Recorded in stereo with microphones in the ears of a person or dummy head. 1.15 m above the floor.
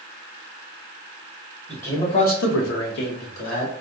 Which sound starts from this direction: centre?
A man speaking, at 1.7 s.